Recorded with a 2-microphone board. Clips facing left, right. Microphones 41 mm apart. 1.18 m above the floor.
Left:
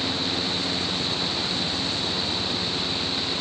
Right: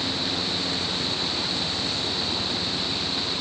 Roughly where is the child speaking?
No child speaking in this recording.